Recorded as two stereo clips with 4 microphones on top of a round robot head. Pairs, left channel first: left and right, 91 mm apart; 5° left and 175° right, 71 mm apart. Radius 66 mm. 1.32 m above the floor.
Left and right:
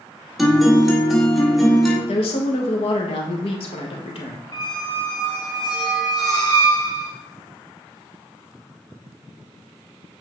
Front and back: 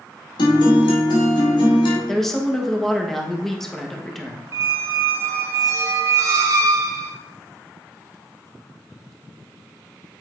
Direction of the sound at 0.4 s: Straight ahead.